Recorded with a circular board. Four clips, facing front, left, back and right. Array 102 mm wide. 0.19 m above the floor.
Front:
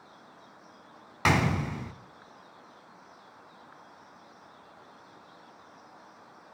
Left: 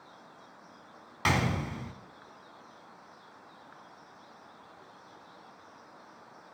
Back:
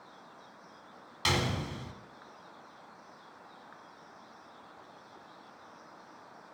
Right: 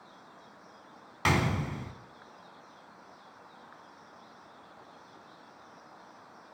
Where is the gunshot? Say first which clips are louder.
Right 1 dB, front 6 dB; straight ahead, 0.6 m.